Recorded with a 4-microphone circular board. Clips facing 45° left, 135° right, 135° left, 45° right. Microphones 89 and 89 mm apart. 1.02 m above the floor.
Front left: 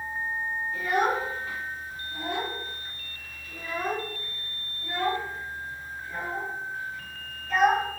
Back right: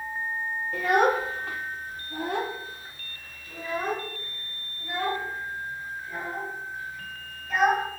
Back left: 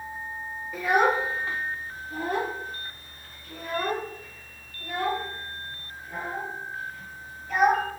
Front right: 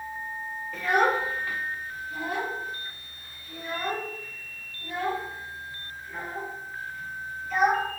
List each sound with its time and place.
0.7 s a child speaking: 145° right, 1.3 m; by 7.8 s 145° left, 4 m